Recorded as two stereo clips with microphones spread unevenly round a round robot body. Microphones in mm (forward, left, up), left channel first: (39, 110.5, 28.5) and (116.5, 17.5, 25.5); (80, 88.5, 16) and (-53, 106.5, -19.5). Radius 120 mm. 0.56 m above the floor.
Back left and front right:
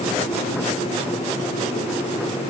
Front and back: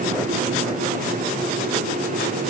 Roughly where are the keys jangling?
No keys jangling in this recording.